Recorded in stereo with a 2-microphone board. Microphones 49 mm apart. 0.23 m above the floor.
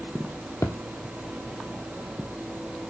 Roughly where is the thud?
Left.